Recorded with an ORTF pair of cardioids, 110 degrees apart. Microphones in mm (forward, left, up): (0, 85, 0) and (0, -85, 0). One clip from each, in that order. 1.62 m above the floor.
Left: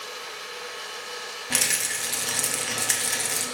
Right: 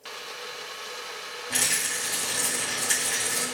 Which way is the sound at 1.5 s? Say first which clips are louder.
Left 1 dB; 50° left.